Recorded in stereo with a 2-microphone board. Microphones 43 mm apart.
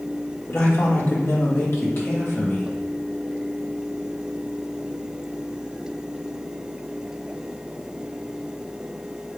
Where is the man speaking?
70° left (ahead or behind), 2.5 m; by 2.8 s 55° left (ahead or behind), 3.5 m.